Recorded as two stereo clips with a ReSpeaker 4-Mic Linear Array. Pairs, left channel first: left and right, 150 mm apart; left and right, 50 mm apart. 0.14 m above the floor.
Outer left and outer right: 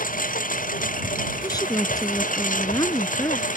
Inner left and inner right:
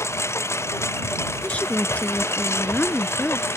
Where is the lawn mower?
65° left (ahead or behind); by 3.6 s 60° left (ahead or behind).